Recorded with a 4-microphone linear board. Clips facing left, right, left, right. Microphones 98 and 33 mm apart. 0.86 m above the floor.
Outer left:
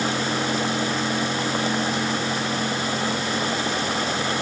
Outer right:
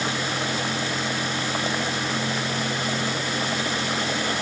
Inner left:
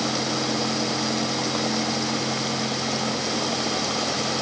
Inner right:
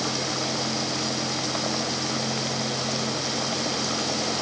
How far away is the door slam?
No door slam in this recording.